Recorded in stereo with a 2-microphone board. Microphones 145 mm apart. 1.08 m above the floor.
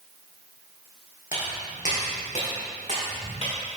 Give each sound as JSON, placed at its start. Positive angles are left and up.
{"t": 1.3, "sound": "footsteps", "side_deg": 65, "distance_m": 3.0}